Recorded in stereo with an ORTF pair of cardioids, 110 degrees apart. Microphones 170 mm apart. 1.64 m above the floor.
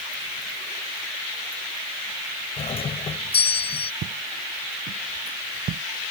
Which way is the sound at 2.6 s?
35° left.